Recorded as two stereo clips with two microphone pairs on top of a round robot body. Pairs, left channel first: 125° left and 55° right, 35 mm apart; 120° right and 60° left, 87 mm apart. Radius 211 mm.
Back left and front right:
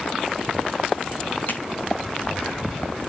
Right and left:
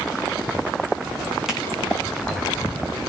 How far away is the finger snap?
About 6 m.